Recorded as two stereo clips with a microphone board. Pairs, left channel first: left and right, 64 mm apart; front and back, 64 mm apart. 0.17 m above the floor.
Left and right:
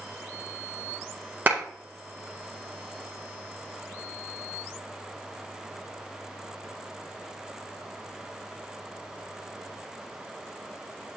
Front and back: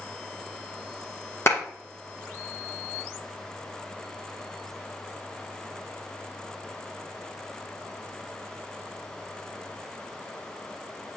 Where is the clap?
35° right, 2.0 m.